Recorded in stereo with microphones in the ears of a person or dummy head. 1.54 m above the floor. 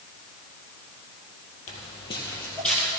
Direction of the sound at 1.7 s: 35° left (ahead or behind).